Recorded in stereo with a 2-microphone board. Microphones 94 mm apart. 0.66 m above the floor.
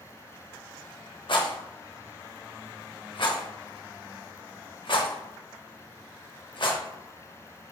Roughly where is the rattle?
Left.